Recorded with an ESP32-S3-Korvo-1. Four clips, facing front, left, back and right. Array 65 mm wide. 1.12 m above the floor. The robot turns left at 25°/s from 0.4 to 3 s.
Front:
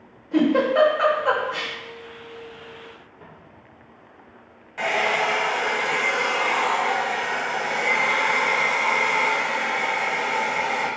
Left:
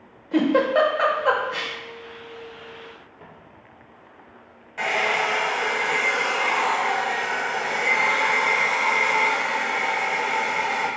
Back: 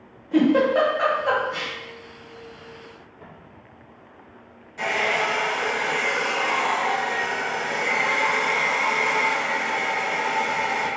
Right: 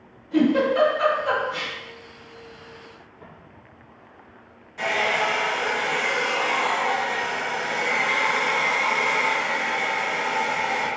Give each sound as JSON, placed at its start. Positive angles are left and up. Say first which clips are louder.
{"t": 0.3, "sound": "a giggle", "louder": "even, back 1 dB", "azimuth_deg": 105, "distance_m": 0.8}
{"t": 3.2, "sound": "footsteps", "louder": "right 2 dB, back 2 dB", "azimuth_deg": 85, "distance_m": 1.9}
{"t": 4.8, "sound": "a hair dryer", "louder": "even, front 1 dB", "azimuth_deg": 55, "distance_m": 1.4}